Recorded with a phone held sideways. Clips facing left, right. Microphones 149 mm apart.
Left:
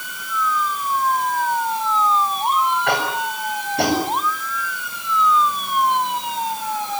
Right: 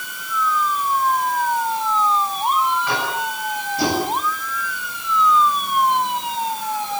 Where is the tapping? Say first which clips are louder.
Left 2 dB; 70° left (ahead or behind), 7.5 m.